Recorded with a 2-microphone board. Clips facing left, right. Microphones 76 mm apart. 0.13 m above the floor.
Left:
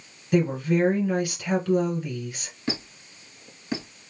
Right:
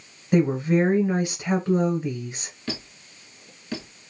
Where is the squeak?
20° left (ahead or behind), 0.8 m.